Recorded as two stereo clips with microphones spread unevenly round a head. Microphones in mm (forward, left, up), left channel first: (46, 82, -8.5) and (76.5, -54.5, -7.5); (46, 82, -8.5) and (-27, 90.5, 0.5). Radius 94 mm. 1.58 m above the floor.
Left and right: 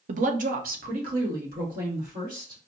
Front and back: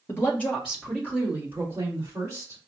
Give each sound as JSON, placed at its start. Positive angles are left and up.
{"t": 0.1, "sound": "a woman speaking", "azimuth_deg": -70, "distance_m": 0.6}